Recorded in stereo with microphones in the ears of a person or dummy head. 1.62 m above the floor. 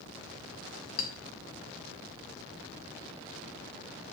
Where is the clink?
50° left (ahead or behind), 1.2 m.